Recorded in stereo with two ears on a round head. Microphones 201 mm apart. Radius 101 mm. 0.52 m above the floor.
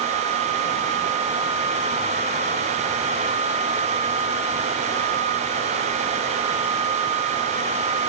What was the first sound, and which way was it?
Only background noise.